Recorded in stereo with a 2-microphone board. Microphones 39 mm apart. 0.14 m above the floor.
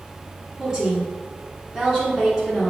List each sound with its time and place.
0.6 s a woman speaking: 20° right (ahead or behind), 1.7 m